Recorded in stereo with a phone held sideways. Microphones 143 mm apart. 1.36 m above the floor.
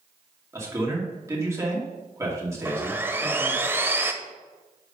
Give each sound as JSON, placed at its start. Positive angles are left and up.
{"t": 0.5, "sound": "a man speaking", "side_deg": -20, "distance_m": 2.5}
{"t": 2.6, "sound": "sawing", "side_deg": -15, "distance_m": 0.9}